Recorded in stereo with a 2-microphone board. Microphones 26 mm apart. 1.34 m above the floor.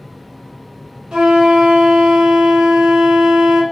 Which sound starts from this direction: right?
A flute, at 1.1 s.